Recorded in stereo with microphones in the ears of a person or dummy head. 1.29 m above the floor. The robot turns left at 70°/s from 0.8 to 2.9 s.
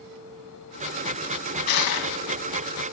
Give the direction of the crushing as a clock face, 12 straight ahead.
8 o'clock.